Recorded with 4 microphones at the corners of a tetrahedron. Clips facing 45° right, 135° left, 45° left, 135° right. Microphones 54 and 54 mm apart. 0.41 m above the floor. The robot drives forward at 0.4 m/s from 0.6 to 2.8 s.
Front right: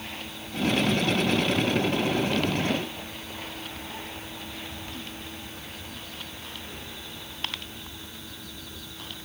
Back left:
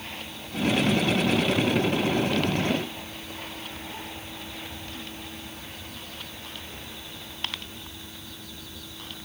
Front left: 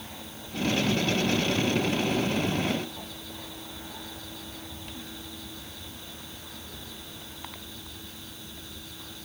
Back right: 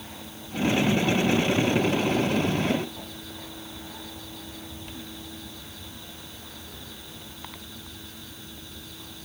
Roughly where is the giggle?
No giggle in this recording.